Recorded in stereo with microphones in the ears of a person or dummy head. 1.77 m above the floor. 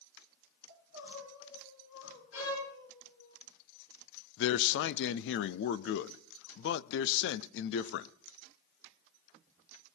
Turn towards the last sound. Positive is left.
turn(degrees=70)  # may be behind; listen again after turning